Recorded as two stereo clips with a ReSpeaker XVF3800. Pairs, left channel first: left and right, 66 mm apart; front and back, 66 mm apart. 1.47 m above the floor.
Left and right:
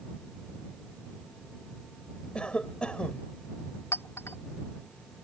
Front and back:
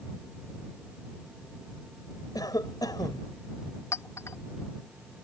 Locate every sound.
2.4 s a cough: 15° left
3.9 s a clink: 40° left